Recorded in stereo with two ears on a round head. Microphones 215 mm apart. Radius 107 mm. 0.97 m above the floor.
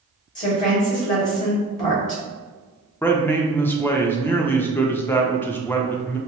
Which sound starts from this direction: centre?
A man speaking, at 3.0 s.